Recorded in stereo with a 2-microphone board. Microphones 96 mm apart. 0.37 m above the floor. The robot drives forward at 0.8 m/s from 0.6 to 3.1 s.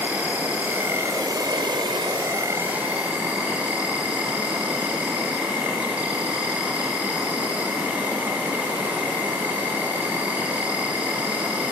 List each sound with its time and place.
0.0 s an insect: 20° right (ahead or behind), 1.0 m